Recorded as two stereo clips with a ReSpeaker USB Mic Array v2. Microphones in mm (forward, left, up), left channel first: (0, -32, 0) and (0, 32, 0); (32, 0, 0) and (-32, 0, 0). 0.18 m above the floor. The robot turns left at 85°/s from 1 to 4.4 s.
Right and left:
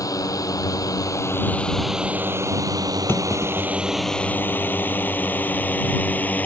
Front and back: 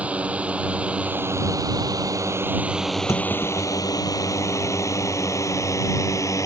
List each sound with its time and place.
0.0 s a drone: 110° right; by 6.5 s 30° right
3.1 s a clunk: 35° right; by 6.5 s 150° right